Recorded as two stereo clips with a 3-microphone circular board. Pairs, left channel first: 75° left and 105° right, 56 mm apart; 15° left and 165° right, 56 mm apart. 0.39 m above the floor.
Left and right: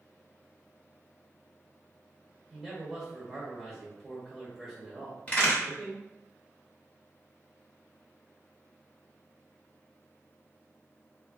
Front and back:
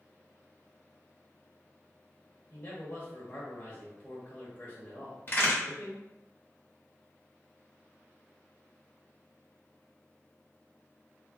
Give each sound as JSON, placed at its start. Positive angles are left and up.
{"t": 2.5, "sound": "a man speaking", "azimuth_deg": -15, "distance_m": 1.1}
{"t": 5.3, "sound": "a crack", "azimuth_deg": 25, "distance_m": 1.5}